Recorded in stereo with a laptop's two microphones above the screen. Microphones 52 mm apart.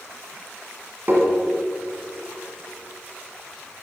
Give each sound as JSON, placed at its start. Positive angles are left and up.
{"t": 1.1, "sound": "tapping", "side_deg": -45, "distance_m": 1.8}